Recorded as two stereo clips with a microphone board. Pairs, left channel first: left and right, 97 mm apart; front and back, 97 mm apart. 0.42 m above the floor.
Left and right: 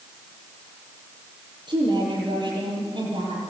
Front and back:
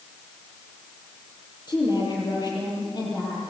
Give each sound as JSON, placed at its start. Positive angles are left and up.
{"t": 1.7, "sound": "a woman speaking", "azimuth_deg": -50, "distance_m": 9.5}